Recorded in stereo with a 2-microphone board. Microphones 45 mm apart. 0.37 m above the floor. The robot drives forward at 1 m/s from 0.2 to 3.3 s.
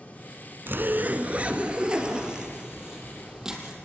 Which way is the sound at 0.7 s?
55° right (ahead or behind).